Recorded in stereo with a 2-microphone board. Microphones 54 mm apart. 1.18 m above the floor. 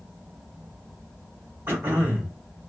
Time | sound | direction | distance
1.7 | throat clearing | 70° right (ahead or behind) | 1.8 m